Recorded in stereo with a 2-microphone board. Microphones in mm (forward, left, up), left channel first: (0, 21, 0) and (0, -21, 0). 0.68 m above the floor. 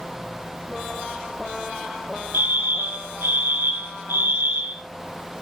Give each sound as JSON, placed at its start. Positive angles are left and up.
{"t": 2.3, "sound": "a fire alarm", "side_deg": -70, "distance_m": 6.0}